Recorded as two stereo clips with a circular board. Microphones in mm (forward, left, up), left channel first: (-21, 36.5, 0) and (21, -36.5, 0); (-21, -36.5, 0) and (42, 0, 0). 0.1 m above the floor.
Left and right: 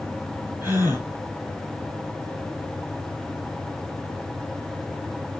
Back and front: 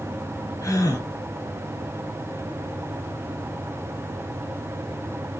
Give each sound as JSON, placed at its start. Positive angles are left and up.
{"t": 0.6, "sound": "a gasp", "azimuth_deg": -125, "distance_m": 3.0}